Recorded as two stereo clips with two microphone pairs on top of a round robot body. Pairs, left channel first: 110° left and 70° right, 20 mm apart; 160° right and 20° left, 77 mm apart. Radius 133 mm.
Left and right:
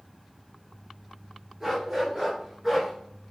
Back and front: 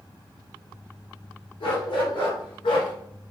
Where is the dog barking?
145° right, 3 m; by 2.9 s 155° right, 2 m.